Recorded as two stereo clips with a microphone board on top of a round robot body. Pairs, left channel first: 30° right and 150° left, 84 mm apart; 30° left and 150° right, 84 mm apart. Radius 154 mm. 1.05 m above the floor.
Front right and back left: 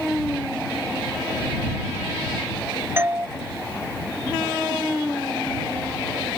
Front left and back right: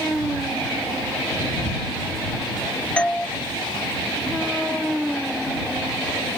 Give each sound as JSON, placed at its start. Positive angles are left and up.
{"t": 3.0, "sound": "a doorbell", "azimuth_deg": 100}